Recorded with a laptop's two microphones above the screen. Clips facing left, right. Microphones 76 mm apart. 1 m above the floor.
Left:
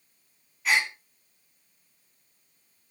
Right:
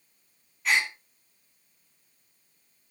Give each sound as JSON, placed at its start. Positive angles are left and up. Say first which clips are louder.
{"t": 0.7, "sound": "a gasp", "louder": "left 1 dB", "side_deg": 0, "distance_m": 2.5}